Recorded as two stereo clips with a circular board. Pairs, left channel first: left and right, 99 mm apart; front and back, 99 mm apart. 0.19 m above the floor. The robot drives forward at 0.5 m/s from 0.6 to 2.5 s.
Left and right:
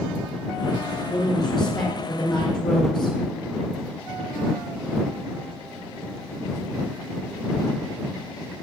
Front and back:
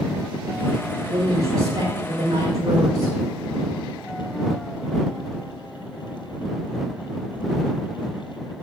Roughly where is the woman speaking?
Behind left.